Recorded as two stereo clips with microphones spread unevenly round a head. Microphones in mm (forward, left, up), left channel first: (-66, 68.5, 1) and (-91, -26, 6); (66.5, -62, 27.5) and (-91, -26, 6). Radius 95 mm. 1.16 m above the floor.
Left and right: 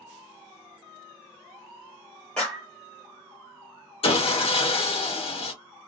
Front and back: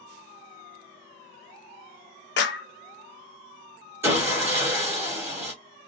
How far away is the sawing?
About 1.1 m.